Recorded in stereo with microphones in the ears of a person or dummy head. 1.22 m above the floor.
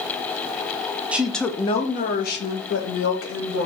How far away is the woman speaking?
About 0.6 m.